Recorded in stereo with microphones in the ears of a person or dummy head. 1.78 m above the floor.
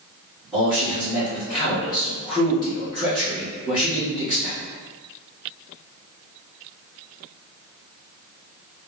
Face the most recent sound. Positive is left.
turn(degrees=0)  # may be behind; listen again after turning